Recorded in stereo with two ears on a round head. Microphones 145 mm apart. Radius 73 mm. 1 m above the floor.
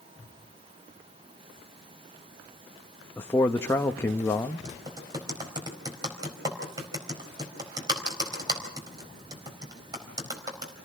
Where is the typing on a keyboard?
25° right (ahead or behind), 4 m.